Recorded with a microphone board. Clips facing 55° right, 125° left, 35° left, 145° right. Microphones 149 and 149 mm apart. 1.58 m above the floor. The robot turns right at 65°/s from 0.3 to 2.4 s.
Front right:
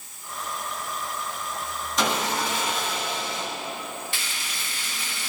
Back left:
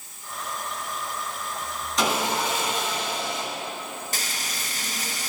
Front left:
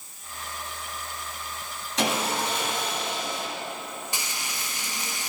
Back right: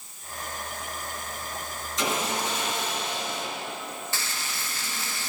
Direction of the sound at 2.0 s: 30° left.